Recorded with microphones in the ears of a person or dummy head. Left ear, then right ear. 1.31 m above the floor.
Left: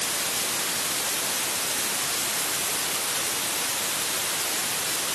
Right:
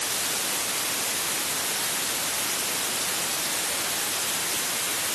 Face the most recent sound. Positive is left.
No sound to turn to.